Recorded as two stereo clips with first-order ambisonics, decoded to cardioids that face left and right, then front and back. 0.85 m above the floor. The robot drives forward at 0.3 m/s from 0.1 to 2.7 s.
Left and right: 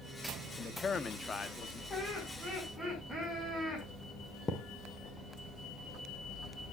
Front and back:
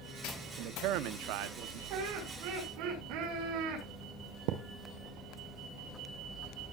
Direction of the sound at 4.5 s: 165° left.